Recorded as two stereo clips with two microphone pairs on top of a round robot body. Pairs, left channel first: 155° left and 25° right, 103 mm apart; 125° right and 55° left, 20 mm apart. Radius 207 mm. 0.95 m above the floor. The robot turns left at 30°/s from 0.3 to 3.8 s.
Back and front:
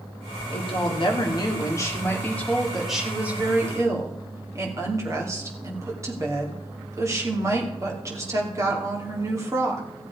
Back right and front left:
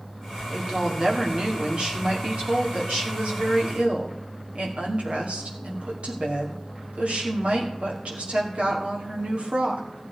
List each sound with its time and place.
0.5 s a woman speaking: 135° left, 2.5 m; by 9.8 s 40° left, 2.5 m